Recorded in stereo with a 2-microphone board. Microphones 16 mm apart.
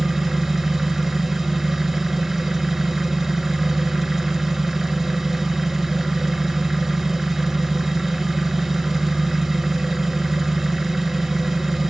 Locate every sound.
0.0 s an engine running: 10° right (ahead or behind), 0.8 m